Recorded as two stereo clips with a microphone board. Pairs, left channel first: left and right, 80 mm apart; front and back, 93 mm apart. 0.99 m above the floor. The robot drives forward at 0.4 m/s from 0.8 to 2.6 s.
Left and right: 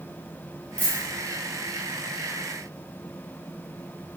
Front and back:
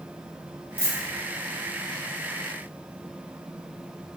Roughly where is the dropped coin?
Ahead left.